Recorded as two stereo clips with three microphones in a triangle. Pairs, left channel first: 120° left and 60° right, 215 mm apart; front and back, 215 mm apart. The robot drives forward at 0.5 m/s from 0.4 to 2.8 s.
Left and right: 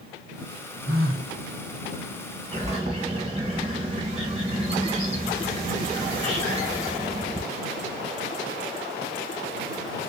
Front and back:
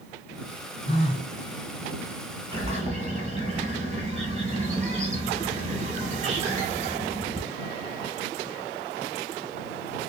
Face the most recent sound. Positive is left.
turn(degrees=-120)